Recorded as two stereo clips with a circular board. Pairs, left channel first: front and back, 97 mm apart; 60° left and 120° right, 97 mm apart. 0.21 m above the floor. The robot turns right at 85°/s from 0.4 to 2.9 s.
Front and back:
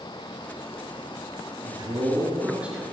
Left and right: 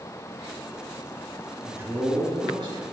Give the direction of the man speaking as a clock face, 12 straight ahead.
6 o'clock.